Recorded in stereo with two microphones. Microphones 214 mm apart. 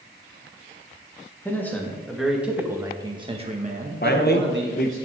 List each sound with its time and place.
1.4 s a man speaking: 10° left (ahead or behind), 2 m; by 5.0 s 65° right (ahead or behind), 1.6 m
4.0 s a man speaking: 45° left (ahead or behind), 1.0 m